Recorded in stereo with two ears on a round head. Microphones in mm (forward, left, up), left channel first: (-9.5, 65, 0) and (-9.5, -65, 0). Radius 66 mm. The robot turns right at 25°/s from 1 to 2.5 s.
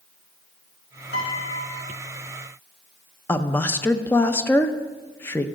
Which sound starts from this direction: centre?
A woman speaking, at 3.3 s.